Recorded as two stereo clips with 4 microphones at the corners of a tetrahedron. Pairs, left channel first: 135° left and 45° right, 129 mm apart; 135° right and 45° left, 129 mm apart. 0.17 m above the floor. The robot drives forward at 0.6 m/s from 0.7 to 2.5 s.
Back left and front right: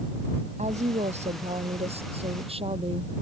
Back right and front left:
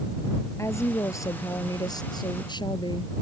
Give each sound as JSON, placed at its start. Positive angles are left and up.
{"t": 0.6, "sound": "a woman speaking", "azimuth_deg": -65}